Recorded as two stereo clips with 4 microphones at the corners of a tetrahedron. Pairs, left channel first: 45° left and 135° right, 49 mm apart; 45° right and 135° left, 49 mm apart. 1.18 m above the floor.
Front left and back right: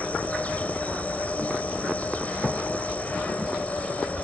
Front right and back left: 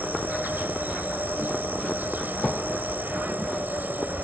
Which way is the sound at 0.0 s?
95° left.